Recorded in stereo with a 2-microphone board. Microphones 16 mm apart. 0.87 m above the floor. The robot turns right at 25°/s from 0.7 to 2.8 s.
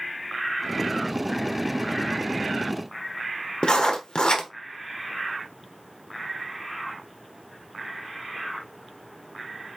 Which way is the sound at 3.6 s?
70° left (ahead or behind).